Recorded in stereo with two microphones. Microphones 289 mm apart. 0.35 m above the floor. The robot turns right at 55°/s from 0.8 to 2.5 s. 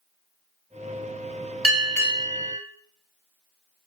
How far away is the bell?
About 0.8 m.